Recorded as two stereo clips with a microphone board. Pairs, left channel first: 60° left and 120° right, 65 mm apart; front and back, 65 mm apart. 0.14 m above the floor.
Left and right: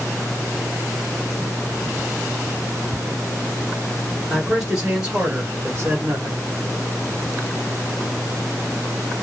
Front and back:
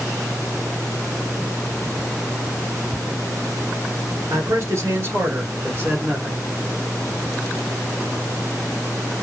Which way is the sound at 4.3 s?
155° left.